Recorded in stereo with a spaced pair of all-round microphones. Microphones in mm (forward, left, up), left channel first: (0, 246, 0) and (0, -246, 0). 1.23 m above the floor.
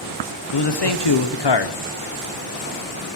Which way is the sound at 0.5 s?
55° left (ahead or behind).